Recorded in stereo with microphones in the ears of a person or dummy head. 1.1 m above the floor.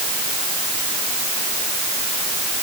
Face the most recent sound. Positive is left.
No sound to turn to.